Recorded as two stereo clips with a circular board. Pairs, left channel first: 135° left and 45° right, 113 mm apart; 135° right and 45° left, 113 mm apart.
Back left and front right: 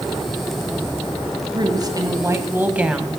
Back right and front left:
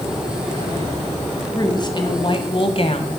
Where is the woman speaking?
85° right, 2 m; by 3.2 s 135° right, 1.9 m.